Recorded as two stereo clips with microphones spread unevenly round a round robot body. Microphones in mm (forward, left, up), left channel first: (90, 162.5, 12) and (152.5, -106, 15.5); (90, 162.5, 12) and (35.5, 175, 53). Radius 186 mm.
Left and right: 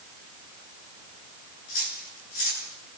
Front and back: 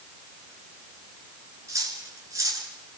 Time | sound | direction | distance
1.7 | cutlery clinking | 145° left | 9 m